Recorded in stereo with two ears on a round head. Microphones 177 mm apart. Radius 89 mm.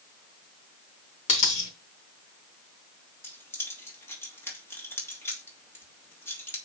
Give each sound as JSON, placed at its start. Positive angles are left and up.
{"t": 1.3, "sound": "a dropped coin", "side_deg": 40, "distance_m": 3.0}
{"t": 3.2, "sound": "keys jangling", "side_deg": 10, "distance_m": 3.0}